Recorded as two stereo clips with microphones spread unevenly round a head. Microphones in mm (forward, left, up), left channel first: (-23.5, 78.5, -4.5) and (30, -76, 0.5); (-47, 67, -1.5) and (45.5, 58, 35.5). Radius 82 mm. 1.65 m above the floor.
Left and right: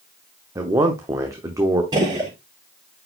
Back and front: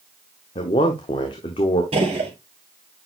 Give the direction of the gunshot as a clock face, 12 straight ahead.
12 o'clock.